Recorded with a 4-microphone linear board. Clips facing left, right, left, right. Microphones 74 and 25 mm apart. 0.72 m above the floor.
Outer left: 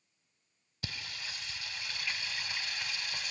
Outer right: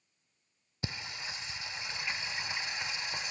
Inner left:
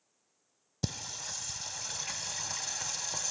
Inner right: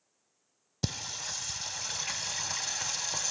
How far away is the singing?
About 0.6 m.